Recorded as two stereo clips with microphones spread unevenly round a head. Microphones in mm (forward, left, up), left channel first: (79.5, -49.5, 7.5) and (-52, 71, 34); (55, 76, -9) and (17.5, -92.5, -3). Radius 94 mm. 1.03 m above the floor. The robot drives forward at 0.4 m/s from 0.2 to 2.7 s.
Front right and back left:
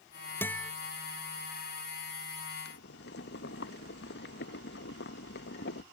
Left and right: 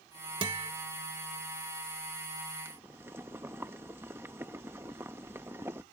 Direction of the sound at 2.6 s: 25° right.